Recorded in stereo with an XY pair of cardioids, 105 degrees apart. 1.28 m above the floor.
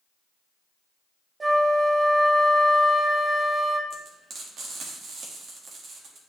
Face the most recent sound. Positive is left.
turn(degrees=-65)